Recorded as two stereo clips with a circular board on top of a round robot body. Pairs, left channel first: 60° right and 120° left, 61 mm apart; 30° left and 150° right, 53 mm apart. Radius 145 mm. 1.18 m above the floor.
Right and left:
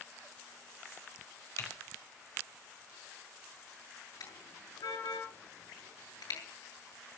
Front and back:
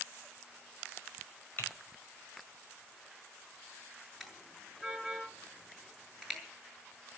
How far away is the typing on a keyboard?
About 5 m.